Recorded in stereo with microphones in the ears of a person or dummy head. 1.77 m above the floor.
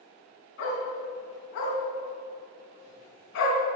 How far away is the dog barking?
About 4 m.